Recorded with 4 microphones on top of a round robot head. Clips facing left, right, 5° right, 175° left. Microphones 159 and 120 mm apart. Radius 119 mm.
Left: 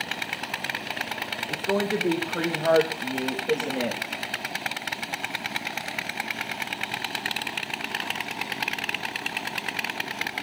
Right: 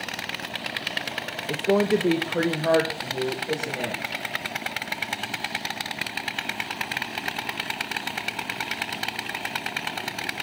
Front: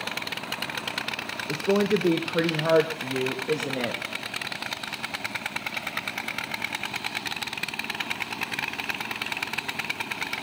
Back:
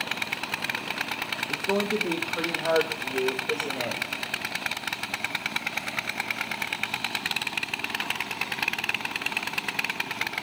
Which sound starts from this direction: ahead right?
A woman speaking, at 1.5 s.